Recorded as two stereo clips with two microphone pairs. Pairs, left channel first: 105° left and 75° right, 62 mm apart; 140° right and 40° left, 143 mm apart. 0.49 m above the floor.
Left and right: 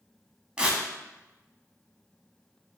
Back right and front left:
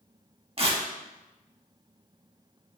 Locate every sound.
0.6 s tearing paper: 5° right, 0.6 m